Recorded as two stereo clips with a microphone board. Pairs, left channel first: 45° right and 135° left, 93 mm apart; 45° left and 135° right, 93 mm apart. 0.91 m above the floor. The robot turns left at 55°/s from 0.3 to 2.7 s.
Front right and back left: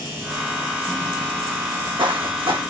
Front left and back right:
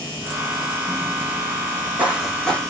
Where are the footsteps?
175° left, 2.5 m; by 2.6 s 120° left, 2.5 m.